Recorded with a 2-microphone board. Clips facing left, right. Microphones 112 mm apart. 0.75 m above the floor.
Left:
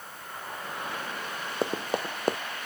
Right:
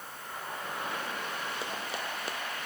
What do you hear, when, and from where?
1.6 s running footsteps: 50° left (ahead or behind)